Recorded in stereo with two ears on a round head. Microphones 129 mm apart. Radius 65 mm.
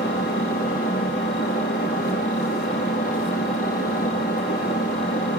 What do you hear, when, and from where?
0.0 s an engine running: 80° left, 1.9 m